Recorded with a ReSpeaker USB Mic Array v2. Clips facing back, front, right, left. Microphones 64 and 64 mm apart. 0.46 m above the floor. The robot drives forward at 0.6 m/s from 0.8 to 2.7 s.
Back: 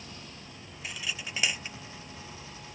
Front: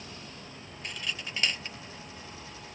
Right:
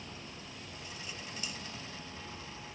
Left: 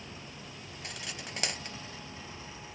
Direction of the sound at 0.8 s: 95° left.